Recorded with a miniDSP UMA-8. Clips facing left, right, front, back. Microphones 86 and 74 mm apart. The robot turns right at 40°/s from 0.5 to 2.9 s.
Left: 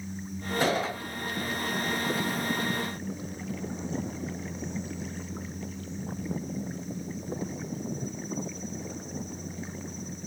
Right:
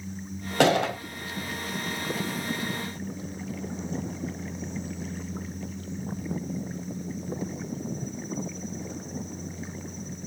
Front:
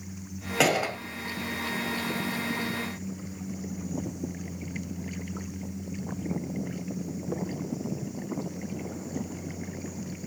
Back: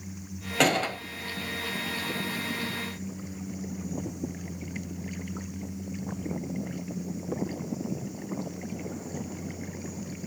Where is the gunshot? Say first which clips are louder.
Right 6 dB, even; 85° right, 1.4 m; by 1.0 s 70° right, 1.4 m.